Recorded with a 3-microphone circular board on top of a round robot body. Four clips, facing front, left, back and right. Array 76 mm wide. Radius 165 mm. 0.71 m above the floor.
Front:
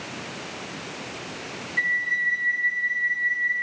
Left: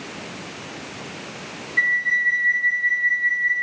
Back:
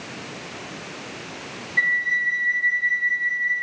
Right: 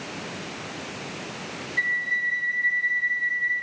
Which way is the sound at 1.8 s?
145° left.